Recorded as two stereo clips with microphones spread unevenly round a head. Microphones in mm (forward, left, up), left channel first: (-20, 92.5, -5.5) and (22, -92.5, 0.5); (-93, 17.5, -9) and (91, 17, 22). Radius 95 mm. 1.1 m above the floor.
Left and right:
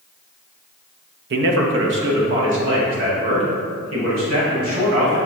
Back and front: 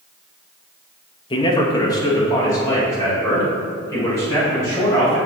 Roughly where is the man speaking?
Behind right.